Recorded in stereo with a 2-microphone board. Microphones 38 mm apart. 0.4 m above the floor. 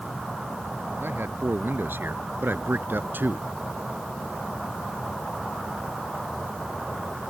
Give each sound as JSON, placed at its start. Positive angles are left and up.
{"t": 1.0, "sound": "a man speaking", "side_deg": -80}